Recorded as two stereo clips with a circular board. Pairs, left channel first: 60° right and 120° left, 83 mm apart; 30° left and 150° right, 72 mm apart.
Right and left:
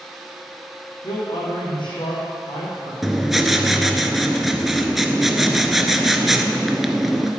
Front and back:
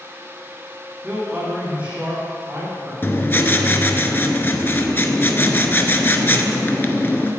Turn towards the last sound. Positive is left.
turn(degrees=35)